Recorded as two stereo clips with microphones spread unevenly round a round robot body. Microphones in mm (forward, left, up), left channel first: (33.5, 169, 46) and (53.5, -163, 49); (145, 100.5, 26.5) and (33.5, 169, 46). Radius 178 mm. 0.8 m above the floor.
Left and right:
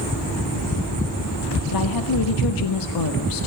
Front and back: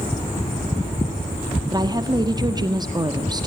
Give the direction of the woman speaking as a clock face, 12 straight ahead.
9 o'clock.